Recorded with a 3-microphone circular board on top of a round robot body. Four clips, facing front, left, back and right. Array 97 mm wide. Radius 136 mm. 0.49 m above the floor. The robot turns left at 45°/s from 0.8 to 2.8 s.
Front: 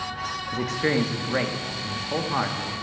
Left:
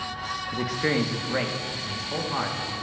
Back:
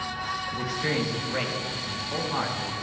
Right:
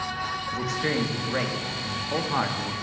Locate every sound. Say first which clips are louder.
0.5 s a man speaking: left 3 dB, front 6 dB; 30° left, 1.0 m; by 2.7 s 60° right, 1.0 m